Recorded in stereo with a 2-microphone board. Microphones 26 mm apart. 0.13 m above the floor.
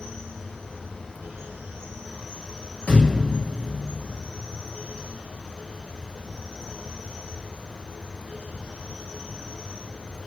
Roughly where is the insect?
Left.